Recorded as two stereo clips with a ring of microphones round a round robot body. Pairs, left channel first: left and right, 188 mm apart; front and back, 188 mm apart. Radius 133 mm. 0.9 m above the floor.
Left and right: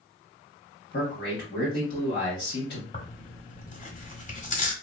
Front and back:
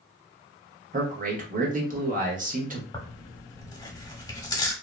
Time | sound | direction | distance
0.9 | a man speaking | 135° left | 1.1 m
2.9 | tearing paper | 65° left | 0.9 m